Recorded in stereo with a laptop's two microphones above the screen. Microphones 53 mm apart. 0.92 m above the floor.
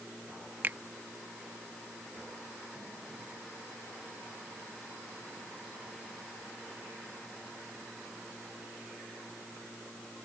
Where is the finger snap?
35° right (ahead or behind).